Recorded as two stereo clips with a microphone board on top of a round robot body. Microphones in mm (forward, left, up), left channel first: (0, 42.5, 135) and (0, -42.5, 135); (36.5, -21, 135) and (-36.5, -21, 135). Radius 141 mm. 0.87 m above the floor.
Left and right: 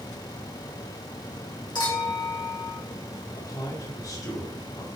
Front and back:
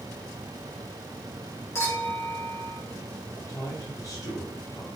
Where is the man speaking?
45° left, 2.5 m.